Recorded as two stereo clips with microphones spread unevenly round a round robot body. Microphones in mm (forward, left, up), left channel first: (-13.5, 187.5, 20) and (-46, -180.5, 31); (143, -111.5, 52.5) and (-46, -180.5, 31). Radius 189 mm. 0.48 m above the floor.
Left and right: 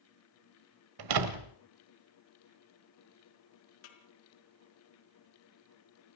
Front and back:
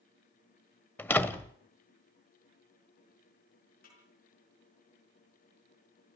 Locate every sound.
1.0 s a door slam: 60° right, 1.7 m
3.8 s a snare drum: 85° left, 4.5 m